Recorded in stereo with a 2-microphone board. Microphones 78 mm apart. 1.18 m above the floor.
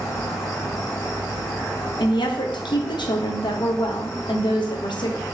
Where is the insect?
50° left (ahead or behind), 1.7 m.